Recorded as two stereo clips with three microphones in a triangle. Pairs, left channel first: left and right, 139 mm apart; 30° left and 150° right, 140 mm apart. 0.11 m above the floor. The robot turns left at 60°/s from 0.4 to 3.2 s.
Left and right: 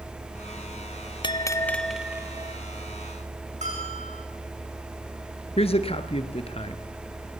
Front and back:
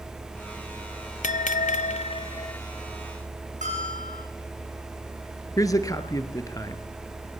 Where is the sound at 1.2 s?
40° left, 0.6 m; by 2.6 s 40° right, 0.6 m.